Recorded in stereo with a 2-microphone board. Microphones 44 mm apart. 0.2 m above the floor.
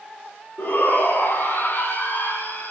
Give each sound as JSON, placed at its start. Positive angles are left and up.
{"t": 0.6, "sound": "a shout", "side_deg": 50, "distance_m": 5.5}